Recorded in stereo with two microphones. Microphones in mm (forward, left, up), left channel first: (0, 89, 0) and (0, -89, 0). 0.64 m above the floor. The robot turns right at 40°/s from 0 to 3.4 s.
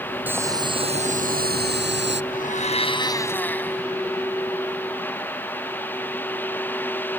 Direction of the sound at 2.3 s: 125° left.